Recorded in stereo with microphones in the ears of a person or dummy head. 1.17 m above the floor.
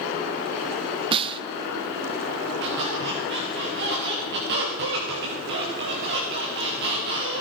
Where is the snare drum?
25° right (ahead or behind), 0.8 m.